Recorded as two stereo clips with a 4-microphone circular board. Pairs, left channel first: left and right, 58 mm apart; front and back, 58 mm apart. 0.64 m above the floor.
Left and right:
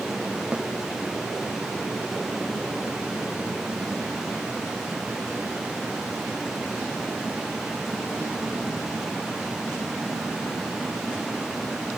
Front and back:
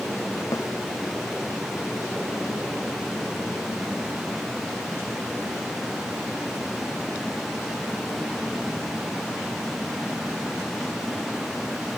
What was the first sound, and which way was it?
A snare drum, 20° right.